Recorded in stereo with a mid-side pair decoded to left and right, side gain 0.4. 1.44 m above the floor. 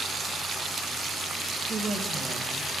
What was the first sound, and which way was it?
A woman speaking, 50° right.